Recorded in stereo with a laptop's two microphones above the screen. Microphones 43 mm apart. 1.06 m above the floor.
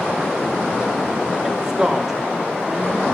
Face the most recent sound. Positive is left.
turn(degrees=-5)  # may be behind; listen again after turning